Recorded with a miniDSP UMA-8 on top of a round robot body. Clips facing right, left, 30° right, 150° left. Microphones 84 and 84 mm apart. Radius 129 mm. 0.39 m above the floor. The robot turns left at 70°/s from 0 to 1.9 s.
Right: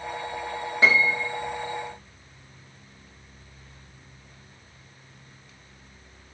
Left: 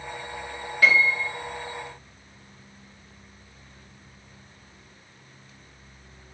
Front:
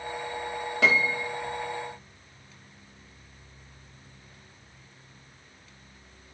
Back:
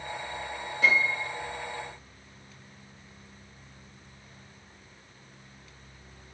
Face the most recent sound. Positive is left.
turn(degrees=-100)